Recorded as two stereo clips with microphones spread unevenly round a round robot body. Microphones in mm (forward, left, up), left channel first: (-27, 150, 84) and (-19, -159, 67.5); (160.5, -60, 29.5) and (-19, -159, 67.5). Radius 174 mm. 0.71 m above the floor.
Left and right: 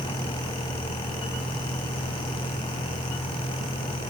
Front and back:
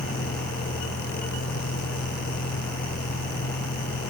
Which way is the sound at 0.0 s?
Straight ahead.